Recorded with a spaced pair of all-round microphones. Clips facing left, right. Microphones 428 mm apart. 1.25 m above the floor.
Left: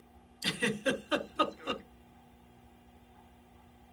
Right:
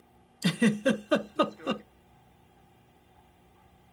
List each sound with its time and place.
0.4 s a giggle: 65° right (ahead or behind), 0.6 m